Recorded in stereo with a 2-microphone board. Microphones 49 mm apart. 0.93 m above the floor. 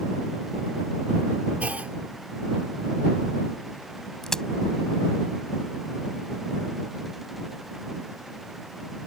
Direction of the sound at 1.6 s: 30° right (ahead or behind).